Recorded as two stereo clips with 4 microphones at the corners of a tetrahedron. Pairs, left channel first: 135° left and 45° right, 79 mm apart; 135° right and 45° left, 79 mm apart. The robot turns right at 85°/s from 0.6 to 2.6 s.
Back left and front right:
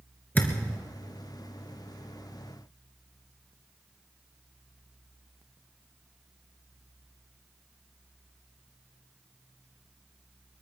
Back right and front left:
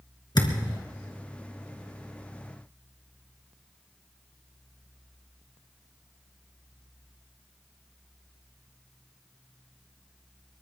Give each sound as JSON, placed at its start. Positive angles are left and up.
{"t": 0.3, "sound": "a thud", "azimuth_deg": -160, "distance_m": 3.0}